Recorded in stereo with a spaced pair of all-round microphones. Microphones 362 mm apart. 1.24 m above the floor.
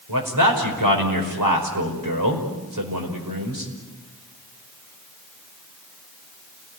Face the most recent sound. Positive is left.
turn(degrees=-60)  # may be behind; listen again after turning